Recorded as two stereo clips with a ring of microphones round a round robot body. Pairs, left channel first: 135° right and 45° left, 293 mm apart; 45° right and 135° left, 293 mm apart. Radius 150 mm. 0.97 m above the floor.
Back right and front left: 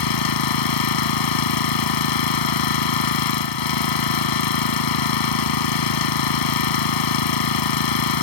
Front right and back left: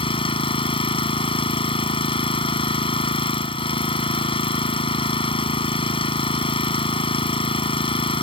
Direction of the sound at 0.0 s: 120° right.